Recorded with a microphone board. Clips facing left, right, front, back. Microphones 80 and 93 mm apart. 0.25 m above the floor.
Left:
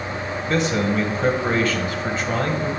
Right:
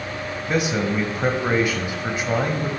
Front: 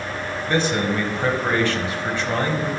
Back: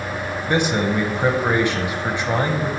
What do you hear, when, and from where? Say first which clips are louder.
0.5 s a man speaking: left 1 dB, back 1 dB; 145° right, 1.0 m